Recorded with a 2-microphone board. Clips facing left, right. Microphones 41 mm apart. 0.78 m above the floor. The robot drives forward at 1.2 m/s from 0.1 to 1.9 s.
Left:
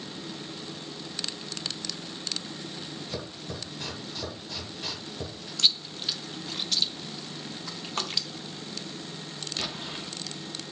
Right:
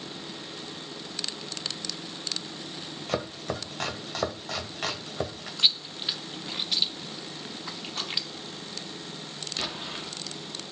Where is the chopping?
80° right, 1.7 m.